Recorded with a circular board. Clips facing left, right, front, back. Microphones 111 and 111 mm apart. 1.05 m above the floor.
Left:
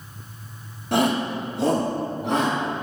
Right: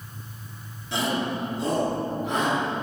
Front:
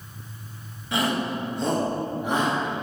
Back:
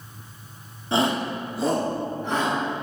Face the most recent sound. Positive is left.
turn(degrees=75)